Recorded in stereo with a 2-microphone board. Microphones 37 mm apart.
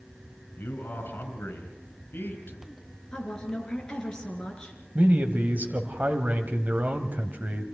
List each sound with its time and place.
0.6 s a man speaking: 70° left (ahead or behind), 3 m
3.1 s a woman speaking: 25° left (ahead or behind), 3.5 m
5.0 s a man speaking: 45° right (ahead or behind), 1.3 m